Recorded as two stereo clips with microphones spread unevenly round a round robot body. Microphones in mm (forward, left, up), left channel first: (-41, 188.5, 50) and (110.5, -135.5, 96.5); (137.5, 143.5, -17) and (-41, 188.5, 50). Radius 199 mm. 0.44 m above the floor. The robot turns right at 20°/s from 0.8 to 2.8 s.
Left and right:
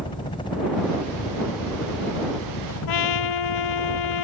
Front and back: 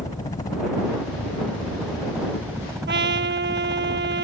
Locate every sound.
0.0 s a helicopter: 45° left; by 4.2 s 85° left
2.9 s a trumpet: 145° left